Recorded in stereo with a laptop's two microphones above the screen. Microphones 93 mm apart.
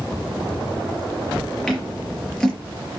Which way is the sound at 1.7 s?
5° left (ahead or behind).